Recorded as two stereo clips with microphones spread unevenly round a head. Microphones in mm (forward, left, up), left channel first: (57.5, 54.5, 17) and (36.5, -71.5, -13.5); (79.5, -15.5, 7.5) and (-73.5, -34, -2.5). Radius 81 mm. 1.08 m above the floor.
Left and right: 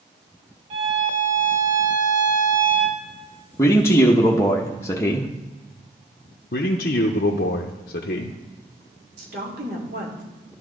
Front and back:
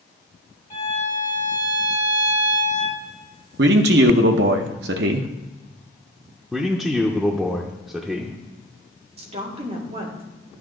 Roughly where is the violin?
Ahead right.